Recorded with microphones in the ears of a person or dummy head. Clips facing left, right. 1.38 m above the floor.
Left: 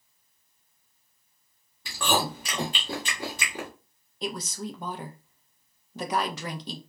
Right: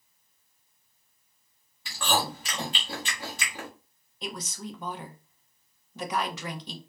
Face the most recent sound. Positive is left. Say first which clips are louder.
# left 4 dB
turn(degrees=40)  # may be behind; listen again after turning